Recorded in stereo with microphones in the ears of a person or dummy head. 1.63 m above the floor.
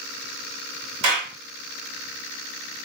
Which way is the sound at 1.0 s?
65° right (ahead or behind).